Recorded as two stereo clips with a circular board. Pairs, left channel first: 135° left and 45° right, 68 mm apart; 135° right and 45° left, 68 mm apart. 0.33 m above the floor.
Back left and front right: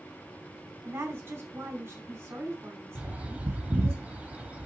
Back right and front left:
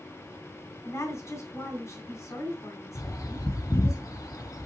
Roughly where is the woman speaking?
Right.